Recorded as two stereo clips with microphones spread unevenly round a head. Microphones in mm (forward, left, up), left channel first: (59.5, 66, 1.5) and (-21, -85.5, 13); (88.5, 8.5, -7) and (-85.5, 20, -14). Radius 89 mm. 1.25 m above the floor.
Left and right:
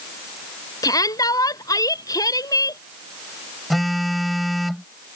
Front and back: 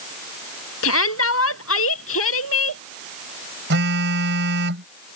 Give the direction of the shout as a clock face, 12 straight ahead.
12 o'clock.